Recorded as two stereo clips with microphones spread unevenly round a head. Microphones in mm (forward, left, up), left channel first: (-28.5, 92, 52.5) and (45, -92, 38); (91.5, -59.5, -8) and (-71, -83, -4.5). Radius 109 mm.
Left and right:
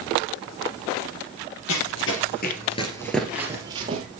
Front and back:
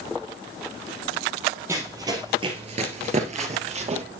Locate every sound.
1.7 s running footsteps: 115° left, 2.5 m; by 4.0 s 130° right, 2.5 m